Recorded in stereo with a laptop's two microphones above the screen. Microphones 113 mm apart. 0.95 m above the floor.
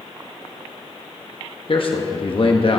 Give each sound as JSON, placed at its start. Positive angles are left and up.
{"t": 1.7, "sound": "a man speaking", "side_deg": 50, "distance_m": 1.2}